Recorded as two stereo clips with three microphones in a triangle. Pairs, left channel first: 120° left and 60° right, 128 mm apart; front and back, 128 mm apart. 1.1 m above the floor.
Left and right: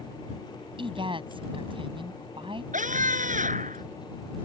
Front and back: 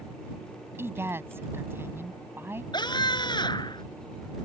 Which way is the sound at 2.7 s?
55° right.